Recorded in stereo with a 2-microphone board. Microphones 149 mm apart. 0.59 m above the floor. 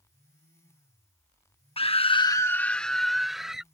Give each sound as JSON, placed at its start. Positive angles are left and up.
{"t": 1.8, "sound": "a scream", "side_deg": 35}